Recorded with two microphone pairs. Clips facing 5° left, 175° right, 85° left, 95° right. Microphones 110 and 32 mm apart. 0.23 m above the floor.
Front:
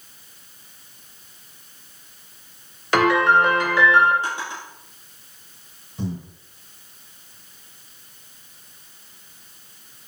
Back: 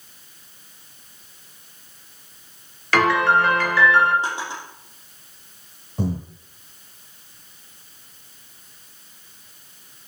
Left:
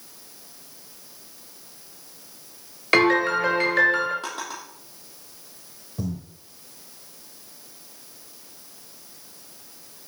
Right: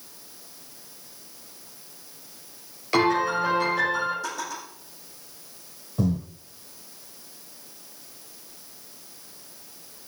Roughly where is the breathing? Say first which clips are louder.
Back 4 dB, right 6 dB; behind right.